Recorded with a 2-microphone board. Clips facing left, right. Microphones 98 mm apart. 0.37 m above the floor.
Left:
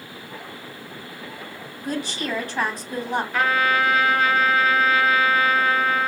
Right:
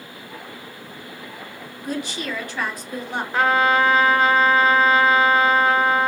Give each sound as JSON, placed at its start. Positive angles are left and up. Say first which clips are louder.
{"t": 1.8, "sound": "a woman speaking", "louder": "left 1 dB", "side_deg": 30, "distance_m": 2.5}
{"t": 3.3, "sound": "a trumpet", "louder": "right 4 dB", "side_deg": -30, "distance_m": 1.4}